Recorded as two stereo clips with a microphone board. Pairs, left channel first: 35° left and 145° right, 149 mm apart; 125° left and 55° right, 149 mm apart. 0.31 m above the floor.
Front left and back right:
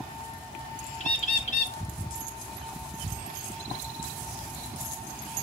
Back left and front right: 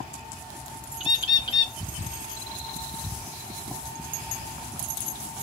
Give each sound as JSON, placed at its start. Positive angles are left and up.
{"t": 1.0, "sound": "a bird", "azimuth_deg": 70, "distance_m": 1.0}